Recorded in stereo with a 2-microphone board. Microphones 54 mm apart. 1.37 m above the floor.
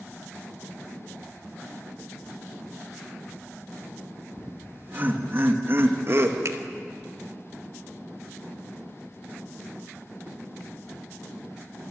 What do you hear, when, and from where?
4.4 s laughter: 30° right (ahead or behind), 2.5 m; by 6.3 s 55° right (ahead or behind), 2 m
6.5 s a finger snap: 60° right (ahead or behind), 1.8 m